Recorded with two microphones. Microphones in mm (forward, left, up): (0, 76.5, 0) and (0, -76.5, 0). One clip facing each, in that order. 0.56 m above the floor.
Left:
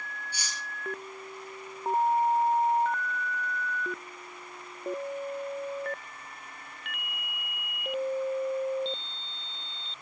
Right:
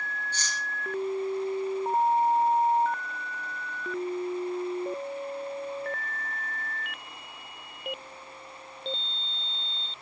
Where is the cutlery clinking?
10° left (ahead or behind), 7 m.